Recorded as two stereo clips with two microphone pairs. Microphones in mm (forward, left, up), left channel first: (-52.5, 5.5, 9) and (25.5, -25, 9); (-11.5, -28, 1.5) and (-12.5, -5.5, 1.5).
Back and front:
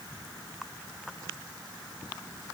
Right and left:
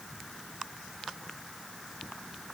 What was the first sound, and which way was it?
Only background noise.